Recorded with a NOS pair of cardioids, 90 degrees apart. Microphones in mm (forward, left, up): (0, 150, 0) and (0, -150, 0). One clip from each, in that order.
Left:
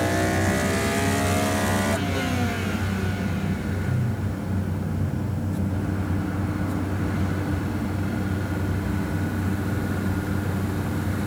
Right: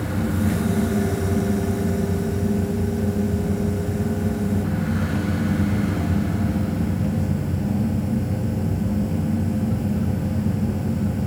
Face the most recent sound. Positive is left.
turn(degrees=-60)